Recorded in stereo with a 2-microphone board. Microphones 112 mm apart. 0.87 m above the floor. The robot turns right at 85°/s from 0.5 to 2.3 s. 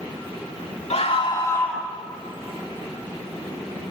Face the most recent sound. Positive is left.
turn(degrees=-140)